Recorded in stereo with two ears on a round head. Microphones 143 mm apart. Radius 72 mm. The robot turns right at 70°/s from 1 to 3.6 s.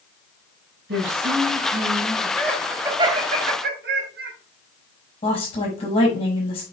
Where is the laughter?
15° left (ahead or behind), 2.5 m; by 4.3 s 70° right (ahead or behind), 2.5 m.